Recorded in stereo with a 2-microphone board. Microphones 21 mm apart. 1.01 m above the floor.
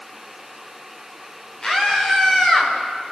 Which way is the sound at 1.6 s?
30° left (ahead or behind).